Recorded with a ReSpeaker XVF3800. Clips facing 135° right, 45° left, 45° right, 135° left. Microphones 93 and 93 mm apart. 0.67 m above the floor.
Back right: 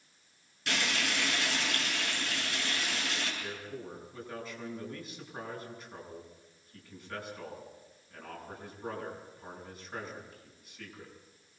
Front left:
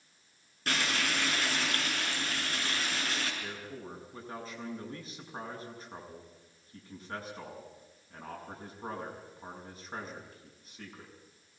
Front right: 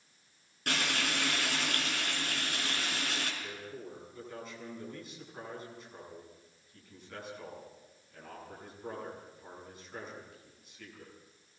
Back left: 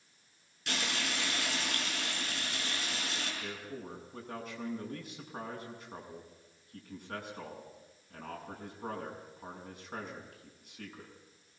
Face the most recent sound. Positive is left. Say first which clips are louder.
# back right 1 dB, back left 1 dB
turn(degrees=100)